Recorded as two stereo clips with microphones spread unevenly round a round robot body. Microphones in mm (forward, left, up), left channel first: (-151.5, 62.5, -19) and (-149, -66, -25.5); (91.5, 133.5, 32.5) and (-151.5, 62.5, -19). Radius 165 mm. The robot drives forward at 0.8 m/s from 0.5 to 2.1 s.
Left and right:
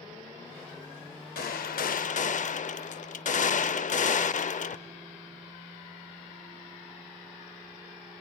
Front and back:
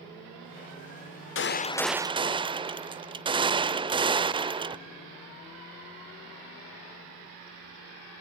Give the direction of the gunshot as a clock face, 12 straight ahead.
10 o'clock.